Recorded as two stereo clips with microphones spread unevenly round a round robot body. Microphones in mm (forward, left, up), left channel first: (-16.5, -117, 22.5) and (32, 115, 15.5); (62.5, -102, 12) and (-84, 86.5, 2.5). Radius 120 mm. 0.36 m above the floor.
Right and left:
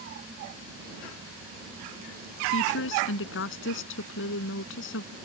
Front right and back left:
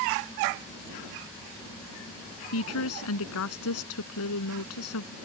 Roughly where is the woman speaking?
Right.